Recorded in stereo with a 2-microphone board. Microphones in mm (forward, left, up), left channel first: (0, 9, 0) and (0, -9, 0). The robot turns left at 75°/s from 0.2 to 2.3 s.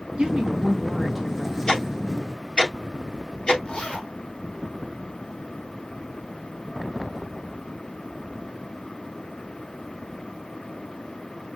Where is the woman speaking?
110° right, 1.9 m; by 1.6 s 145° left, 1.9 m.